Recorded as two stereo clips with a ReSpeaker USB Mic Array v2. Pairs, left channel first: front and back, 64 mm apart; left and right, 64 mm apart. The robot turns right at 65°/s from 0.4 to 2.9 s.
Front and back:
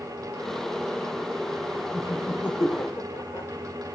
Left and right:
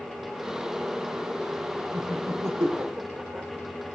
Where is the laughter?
90° right, 1.7 m; by 3.5 s 25° right, 1.7 m.